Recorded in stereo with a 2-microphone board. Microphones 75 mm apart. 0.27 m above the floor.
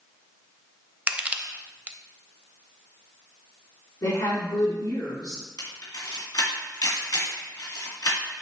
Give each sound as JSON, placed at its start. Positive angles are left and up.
{"t": 1.1, "sound": "crushing", "side_deg": -20, "distance_m": 0.6}
{"t": 4.0, "sound": "a woman speaking", "side_deg": 70, "distance_m": 2.5}
{"t": 5.6, "sound": "a camera shutter", "side_deg": 60, "distance_m": 2.5}